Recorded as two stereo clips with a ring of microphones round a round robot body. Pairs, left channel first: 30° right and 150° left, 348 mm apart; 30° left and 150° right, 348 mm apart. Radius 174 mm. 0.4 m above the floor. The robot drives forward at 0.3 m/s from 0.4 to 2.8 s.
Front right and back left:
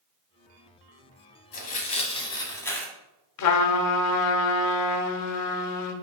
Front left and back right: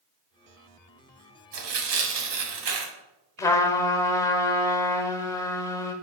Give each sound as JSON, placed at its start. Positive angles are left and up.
{"t": 1.5, "sound": "tearing paper", "azimuth_deg": -95, "distance_m": 1.1}
{"t": 3.4, "sound": "a trumpet", "azimuth_deg": -50, "distance_m": 0.7}